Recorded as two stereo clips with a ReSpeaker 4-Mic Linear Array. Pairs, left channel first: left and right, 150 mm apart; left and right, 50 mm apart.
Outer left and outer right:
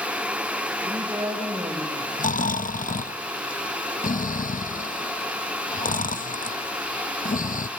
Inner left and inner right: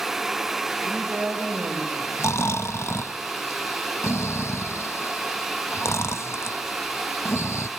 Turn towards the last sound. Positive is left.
turn(degrees=70)  # may be behind; listen again after turning